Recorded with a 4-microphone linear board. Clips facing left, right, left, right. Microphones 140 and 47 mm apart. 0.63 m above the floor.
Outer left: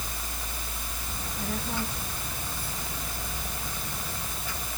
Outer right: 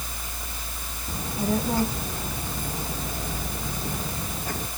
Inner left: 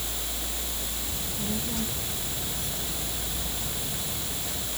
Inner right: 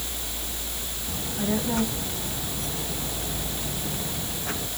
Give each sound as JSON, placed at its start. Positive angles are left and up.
{"t": 1.1, "sound": "a child speaking", "side_deg": -40}